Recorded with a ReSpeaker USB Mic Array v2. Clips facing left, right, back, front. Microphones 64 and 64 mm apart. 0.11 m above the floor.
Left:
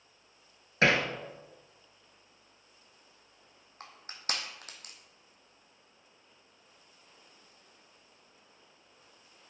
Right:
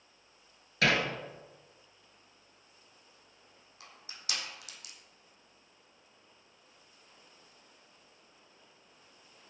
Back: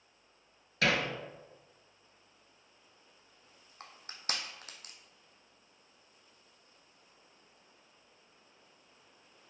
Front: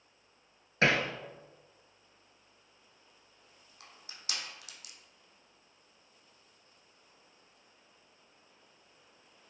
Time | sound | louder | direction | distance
0.8 | hammering | left 2 dB, front 2 dB | 40° left | 1.3 m
3.8 | crushing | left 7 dB, back 6 dB | 135° left | 1.6 m